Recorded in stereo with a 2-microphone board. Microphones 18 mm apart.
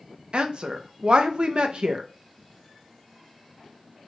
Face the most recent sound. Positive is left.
turn(degrees=-55)  # may be behind; listen again after turning